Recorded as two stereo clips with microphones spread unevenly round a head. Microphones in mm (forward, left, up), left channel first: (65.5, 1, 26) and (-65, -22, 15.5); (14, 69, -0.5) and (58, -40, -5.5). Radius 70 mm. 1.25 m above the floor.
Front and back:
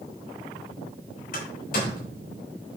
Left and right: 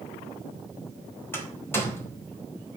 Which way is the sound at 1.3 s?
40° left.